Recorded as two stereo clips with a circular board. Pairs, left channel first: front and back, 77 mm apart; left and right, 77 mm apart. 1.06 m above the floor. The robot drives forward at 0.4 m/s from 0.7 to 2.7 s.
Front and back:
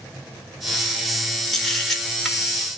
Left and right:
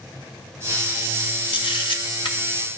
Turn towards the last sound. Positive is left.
turn(degrees=90)